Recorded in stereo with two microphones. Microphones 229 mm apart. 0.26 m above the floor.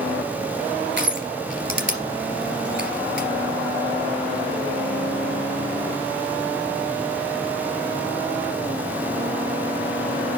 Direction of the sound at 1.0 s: 55° right (ahead or behind).